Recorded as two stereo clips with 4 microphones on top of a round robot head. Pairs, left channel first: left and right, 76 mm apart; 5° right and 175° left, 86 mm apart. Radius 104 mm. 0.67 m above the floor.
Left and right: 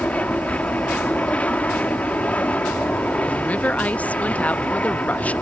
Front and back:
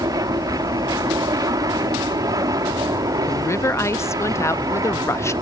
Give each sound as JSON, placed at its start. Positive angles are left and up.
{"t": 0.0, "sound": "an aircraft", "azimuth_deg": 155}
{"t": 3.3, "sound": "a woman speaking", "azimuth_deg": 30}